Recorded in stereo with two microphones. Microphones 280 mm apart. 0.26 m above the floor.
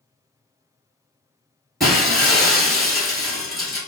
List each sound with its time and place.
1.8 s breaking glass: centre (ahead or behind), 1.2 m